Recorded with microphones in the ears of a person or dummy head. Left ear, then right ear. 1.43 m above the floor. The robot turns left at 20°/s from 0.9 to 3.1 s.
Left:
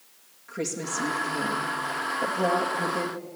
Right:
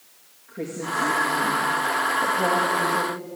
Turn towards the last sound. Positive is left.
turn(degrees=70)